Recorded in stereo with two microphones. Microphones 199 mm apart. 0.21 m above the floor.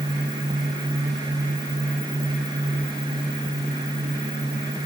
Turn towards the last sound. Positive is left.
No sound to turn to.